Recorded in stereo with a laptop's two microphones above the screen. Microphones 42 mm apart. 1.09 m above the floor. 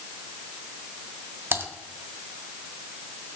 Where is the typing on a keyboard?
55° right (ahead or behind), 1.1 m.